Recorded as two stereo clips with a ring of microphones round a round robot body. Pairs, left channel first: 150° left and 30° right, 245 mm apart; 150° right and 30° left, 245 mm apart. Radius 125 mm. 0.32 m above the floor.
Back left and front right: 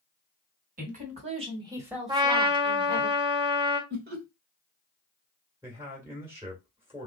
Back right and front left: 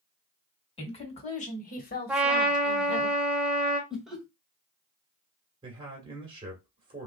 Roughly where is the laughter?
Ahead right.